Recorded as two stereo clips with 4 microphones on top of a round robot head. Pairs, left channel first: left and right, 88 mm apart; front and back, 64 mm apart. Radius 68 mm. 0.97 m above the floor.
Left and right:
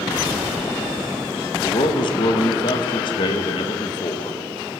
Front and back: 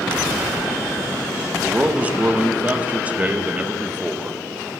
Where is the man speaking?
115° left, 0.9 m.